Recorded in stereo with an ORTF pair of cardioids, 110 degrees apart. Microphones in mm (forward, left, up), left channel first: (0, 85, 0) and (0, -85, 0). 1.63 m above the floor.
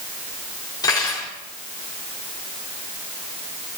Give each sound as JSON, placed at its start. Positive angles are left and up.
{"t": 0.8, "sound": "cutlery clinking", "azimuth_deg": 25, "distance_m": 3.0}